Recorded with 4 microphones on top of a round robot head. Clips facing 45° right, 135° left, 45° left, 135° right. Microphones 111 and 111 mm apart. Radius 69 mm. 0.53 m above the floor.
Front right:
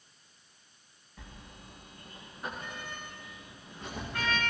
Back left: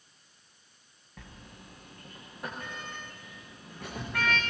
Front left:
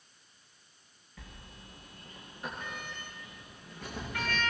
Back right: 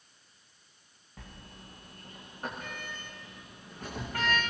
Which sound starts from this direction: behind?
A sliding door, at 1.2 s.